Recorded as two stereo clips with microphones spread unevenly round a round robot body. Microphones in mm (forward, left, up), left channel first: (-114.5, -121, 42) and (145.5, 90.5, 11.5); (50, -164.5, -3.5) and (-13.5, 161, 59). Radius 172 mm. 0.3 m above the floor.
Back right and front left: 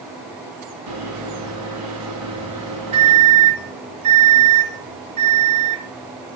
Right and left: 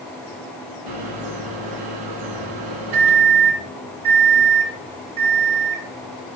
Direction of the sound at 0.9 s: 75° left.